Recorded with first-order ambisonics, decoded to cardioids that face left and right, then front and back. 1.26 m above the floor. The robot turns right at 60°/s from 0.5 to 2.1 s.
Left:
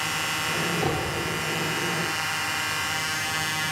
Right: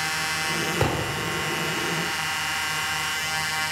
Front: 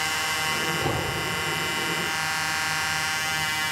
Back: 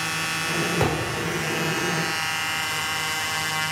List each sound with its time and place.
0.8 s a thud: 135° right, 7 m; by 1.2 s 115° right, 7 m